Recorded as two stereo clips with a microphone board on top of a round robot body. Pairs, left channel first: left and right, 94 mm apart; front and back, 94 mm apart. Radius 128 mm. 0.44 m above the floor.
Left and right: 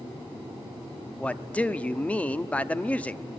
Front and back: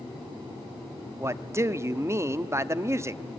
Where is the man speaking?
155° left, 0.8 m.